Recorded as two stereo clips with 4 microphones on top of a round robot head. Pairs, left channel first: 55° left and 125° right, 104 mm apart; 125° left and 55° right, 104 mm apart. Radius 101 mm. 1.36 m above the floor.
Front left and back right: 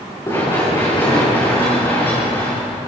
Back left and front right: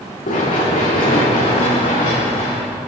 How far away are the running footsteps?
About 9.5 m.